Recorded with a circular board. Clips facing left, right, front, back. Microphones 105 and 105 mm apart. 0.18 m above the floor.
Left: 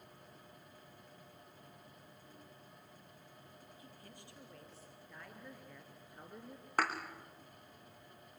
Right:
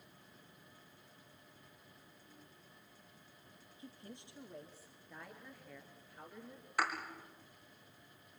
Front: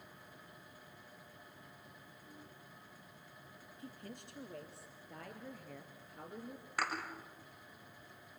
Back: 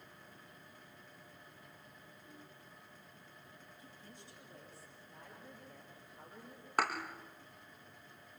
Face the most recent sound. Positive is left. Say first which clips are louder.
# left 2 dB, back 4 dB
turn(degrees=135)